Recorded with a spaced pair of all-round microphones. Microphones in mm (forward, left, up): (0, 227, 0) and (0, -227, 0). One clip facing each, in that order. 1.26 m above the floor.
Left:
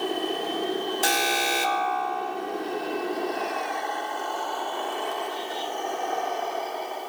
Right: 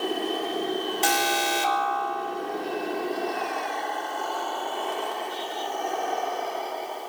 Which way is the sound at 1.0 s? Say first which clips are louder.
Even; 15° right (ahead or behind).